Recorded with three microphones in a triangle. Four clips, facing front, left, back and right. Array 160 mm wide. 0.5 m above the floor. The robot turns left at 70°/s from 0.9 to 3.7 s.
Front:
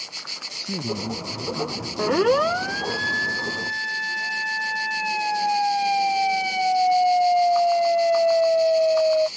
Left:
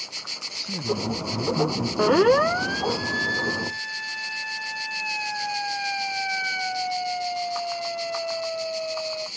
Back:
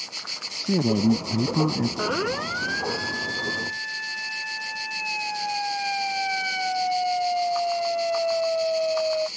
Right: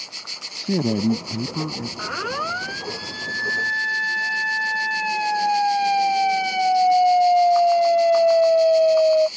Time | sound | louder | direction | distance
0.5 | a man speaking | right 7 dB, back 7 dB | 120° right | ?
2.0 | a siren | left 11 dB, front 7 dB | 75° left | ?